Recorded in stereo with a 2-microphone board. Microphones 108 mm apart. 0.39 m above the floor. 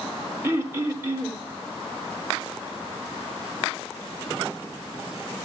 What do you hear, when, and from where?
0.4 s throat clearing: 25° right (ahead or behind), 1.4 m